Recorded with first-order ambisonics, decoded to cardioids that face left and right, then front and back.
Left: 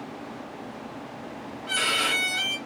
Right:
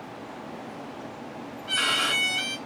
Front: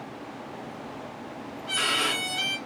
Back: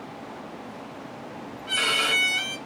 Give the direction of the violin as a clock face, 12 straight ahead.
9 o'clock.